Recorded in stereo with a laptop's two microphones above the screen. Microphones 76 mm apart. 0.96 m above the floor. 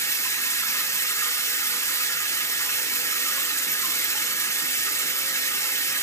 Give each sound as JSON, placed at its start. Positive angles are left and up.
{"t": 0.0, "sound": "running water", "side_deg": 40, "distance_m": 0.9}